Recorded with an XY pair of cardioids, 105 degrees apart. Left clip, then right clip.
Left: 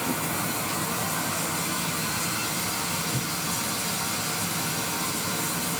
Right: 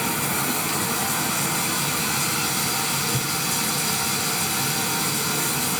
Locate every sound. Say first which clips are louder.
0.0 s running water: right 4 dB; 45° right, 5 m
3.1 s a thud: right 4 dB; 30° right, 5.5 m